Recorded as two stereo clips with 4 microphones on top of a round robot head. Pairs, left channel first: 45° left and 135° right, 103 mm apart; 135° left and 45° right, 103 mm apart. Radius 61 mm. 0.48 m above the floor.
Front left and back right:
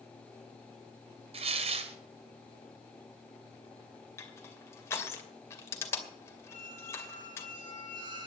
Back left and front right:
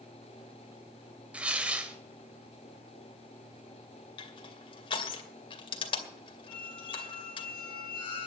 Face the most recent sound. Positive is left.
turn(degrees=180)